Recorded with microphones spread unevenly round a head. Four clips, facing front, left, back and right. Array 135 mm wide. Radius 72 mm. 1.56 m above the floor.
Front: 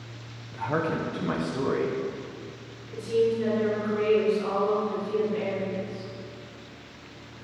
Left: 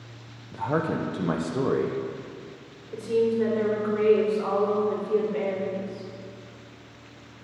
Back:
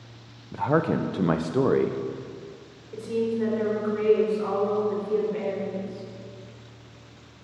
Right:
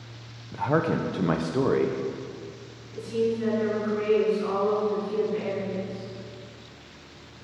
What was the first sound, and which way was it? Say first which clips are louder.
A man speaking: right 2 dB, back 4 dB; 165° right.